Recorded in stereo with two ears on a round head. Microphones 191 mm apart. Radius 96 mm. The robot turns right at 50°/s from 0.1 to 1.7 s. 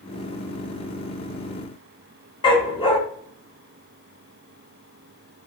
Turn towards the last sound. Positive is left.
turn(degrees=25)  # may be behind; listen again after turning